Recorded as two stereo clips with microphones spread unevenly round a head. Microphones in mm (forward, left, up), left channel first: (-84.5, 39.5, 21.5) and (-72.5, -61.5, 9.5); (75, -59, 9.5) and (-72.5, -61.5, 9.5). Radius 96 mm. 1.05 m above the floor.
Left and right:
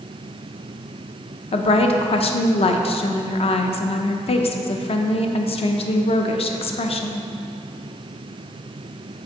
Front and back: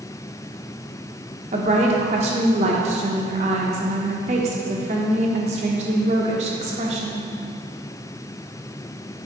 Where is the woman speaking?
125° left, 0.6 m.